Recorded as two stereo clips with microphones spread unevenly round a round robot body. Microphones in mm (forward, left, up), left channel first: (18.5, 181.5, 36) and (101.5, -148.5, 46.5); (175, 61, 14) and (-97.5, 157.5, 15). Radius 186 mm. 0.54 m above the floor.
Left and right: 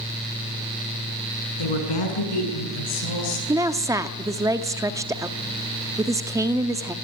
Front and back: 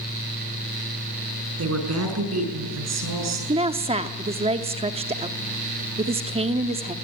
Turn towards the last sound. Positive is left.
turn(degrees=-150)